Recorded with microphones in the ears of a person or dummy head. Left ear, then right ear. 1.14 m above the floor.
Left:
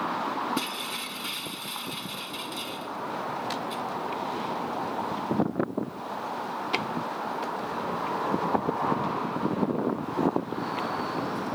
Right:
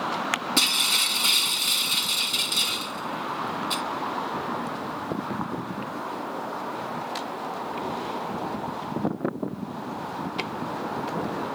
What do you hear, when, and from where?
0.6 s breaking glass: 40° right (ahead or behind)